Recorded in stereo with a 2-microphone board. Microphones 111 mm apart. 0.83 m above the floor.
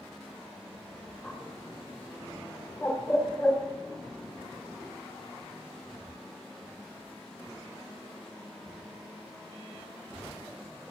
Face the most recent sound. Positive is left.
turn(degrees=20)  # may be behind; listen again after turning